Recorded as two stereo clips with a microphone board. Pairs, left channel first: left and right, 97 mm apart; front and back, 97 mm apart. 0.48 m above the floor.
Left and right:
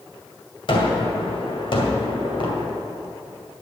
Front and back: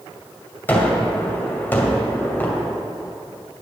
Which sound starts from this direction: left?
A gunshot, at 0.7 s.